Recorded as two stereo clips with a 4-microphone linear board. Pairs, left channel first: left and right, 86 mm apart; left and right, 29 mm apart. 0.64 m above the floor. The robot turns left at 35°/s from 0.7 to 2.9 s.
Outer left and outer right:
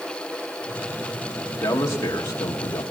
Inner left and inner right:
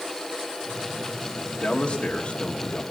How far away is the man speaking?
About 1.3 m.